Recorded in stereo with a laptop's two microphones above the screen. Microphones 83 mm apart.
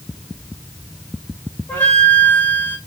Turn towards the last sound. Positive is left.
turn(degrees=25)  # may be behind; listen again after turning